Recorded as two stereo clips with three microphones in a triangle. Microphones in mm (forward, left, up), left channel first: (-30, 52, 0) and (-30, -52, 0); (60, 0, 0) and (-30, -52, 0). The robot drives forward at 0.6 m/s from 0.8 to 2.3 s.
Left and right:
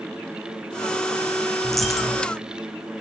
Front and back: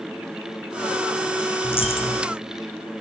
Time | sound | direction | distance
1.6 | a dropped coin | straight ahead | 3.5 m